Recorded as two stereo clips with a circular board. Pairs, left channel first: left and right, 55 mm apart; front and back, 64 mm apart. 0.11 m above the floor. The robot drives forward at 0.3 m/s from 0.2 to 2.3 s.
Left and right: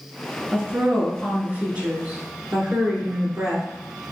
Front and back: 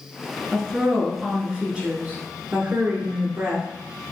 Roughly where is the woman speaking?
Right.